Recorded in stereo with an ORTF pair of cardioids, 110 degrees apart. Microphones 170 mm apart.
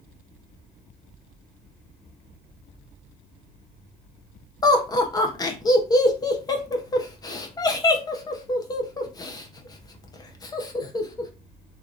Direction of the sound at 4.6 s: 20° left.